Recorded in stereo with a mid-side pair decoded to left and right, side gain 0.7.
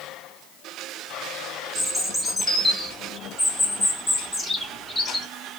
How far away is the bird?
About 0.9 m.